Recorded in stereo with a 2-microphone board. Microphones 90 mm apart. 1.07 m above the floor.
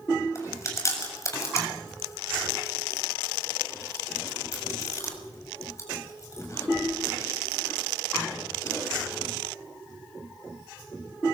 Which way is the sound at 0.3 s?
35° left (ahead or behind).